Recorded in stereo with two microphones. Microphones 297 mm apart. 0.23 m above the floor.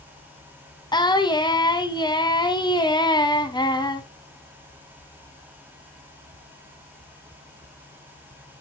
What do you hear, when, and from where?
0.9 s singing: 15° left (ahead or behind), 1.2 m